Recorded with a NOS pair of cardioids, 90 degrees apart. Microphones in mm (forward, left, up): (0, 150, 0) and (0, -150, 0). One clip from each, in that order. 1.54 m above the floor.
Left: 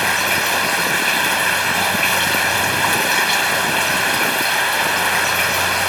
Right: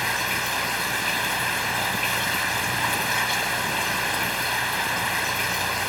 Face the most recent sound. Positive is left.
turn(degrees=55)